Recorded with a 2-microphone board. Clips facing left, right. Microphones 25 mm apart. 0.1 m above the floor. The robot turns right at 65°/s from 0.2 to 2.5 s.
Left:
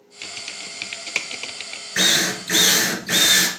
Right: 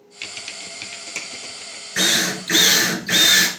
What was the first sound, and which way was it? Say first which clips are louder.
Typing on a keyboard: even; 15° right (ahead or behind).